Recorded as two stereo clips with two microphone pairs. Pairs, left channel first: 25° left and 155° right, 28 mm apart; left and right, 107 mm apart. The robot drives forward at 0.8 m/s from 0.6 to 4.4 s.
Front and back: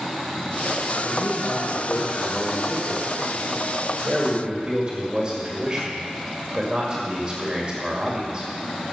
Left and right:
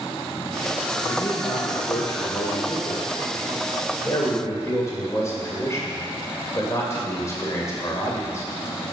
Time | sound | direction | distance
1.0 | a man speaking | 50° left | 1.8 m